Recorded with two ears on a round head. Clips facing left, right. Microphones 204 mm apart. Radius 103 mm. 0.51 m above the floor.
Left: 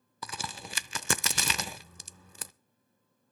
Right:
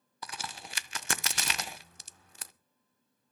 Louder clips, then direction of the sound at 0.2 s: Left 2 dB; 80° left.